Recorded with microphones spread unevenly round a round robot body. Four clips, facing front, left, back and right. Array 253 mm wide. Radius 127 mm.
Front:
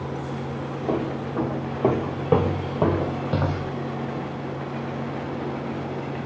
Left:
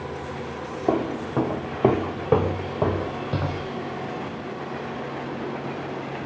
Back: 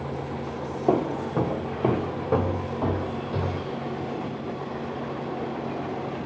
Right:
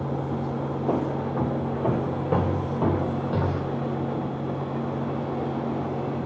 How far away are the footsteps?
About 1.1 m.